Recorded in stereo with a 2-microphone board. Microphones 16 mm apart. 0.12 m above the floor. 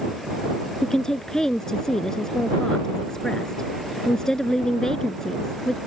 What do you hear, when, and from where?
0.8 s a woman speaking: 40° left (ahead or behind)